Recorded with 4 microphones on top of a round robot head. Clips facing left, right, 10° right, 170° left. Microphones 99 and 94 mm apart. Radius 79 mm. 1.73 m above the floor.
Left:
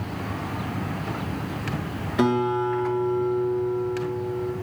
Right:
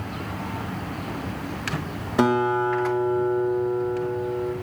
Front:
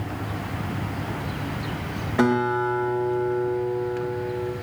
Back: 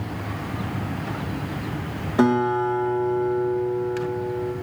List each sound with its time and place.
2.2 s a guitar: 120° right, 1.0 m